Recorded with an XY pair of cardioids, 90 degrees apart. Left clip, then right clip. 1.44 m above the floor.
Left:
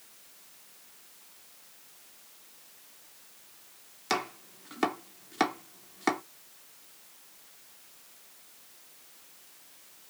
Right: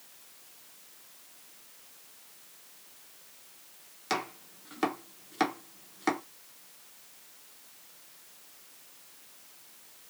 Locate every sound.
4.1 s chopping: 25° left, 1.0 m